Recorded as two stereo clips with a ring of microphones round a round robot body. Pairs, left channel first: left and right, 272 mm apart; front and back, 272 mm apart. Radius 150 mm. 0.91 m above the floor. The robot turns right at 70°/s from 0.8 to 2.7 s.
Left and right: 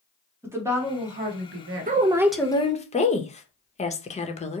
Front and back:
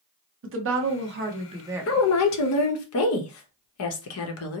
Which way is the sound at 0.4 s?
170° right.